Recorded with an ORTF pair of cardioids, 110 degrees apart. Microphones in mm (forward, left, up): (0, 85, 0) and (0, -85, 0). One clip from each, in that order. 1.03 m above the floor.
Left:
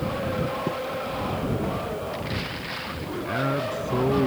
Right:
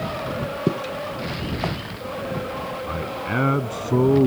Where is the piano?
No piano in this recording.